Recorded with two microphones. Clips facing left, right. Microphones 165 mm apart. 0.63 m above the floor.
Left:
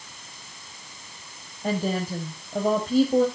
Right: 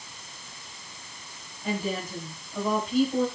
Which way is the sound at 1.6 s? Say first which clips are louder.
Left 4 dB; 55° left (ahead or behind).